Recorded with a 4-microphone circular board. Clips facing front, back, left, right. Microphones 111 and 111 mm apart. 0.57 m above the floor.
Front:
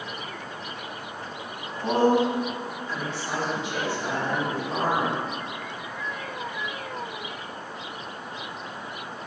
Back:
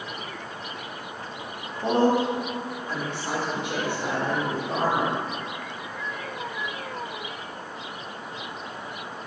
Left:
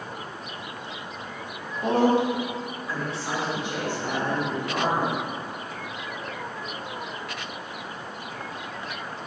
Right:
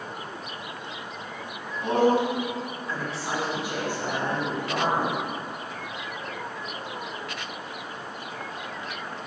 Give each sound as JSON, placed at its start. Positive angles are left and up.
{"t": 1.8, "sound": "a woman speaking", "azimuth_deg": 125, "distance_m": 1.7}